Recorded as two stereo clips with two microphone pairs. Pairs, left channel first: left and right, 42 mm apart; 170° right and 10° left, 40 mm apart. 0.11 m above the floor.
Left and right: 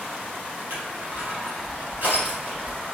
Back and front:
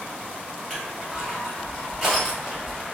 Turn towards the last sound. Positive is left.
turn(degrees=-80)